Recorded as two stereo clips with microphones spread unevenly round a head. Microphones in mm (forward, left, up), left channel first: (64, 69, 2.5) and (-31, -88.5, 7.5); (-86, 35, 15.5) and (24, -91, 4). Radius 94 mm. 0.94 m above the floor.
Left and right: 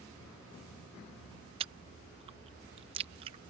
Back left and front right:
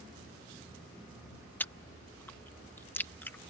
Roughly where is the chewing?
Behind right.